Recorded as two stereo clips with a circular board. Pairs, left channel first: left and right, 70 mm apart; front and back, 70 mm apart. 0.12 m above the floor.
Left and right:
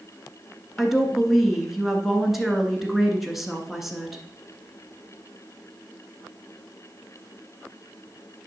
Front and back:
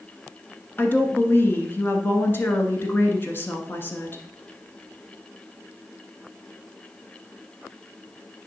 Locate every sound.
0.8 s a woman speaking: 5° right, 1.2 m